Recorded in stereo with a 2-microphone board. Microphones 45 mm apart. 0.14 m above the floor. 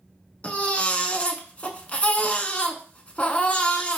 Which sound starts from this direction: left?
A baby crying, at 0.4 s.